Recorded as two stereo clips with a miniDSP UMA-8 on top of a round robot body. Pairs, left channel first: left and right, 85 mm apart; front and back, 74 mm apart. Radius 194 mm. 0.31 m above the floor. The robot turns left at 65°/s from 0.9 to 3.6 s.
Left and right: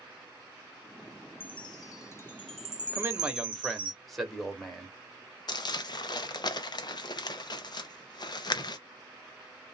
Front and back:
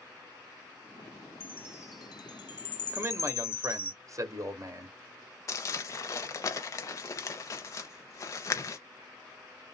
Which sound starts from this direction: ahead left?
Crumpling, at 5.5 s.